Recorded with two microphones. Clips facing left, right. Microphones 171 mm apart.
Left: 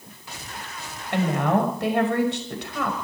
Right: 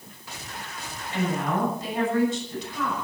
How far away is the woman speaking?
About 6 m.